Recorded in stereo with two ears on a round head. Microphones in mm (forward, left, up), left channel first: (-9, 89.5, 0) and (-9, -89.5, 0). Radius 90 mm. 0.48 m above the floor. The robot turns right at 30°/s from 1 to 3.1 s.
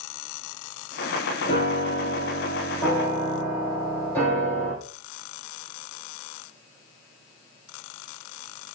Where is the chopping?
I don't hear chopping.